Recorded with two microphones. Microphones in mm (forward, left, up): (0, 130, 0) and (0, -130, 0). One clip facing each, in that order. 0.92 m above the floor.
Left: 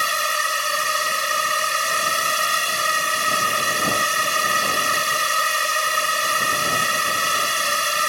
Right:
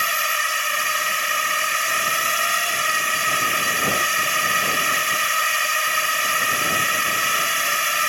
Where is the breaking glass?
I don't hear breaking glass.